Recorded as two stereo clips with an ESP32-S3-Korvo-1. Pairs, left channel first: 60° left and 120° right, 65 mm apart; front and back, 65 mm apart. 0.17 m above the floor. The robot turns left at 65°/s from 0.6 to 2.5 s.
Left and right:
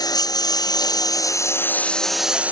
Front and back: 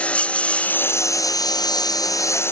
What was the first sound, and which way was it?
A lawn mower, 70° left.